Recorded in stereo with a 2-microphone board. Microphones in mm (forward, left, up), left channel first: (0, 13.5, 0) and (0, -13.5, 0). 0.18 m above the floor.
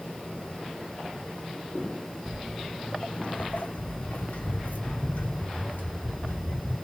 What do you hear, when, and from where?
2.3 s footsteps: 5° right (ahead or behind), 0.7 m; by 6.8 s 70° left (ahead or behind), 2.5 m